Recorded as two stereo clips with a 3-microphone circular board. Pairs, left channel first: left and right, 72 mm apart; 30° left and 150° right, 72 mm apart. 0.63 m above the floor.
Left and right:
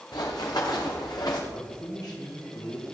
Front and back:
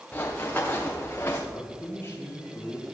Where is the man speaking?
80° left, 3.5 m.